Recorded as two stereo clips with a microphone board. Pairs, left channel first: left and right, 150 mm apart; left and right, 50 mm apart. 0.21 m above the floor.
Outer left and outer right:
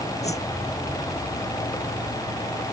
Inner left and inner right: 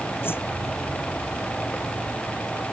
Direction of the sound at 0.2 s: 50° left (ahead or behind).